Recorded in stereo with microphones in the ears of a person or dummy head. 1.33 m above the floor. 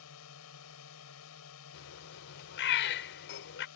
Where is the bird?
65° left (ahead or behind).